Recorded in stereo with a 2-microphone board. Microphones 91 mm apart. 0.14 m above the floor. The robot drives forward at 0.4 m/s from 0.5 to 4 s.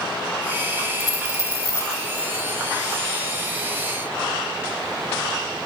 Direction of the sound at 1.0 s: 45° left (ahead or behind).